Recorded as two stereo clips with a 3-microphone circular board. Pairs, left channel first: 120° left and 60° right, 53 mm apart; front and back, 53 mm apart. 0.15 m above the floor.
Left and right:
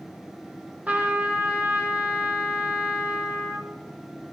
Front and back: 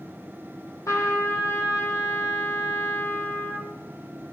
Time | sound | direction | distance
0.9 | a trumpet | 5° right | 3.5 m